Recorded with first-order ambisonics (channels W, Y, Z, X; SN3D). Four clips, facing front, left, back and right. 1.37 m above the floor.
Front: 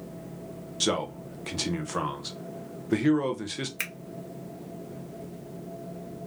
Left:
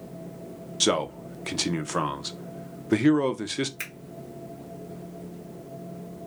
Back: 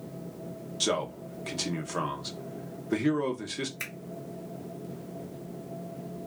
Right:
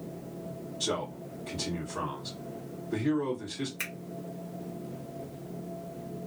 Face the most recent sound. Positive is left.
turn(degrees=5)